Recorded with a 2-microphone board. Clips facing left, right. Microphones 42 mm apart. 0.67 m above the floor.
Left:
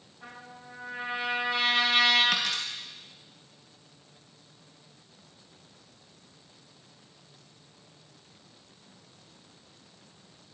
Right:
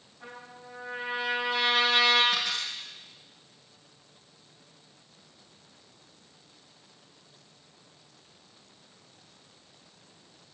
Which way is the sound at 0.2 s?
5° right (ahead or behind).